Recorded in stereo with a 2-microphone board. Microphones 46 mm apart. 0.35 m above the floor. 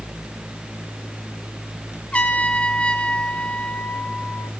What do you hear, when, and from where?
2.1 s a trumpet: 25° left (ahead or behind), 1.1 m